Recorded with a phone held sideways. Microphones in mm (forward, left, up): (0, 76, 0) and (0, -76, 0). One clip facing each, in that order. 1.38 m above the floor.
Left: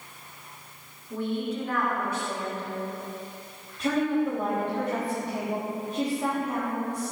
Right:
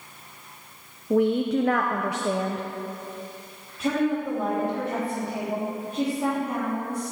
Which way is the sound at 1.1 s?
75° right (ahead or behind).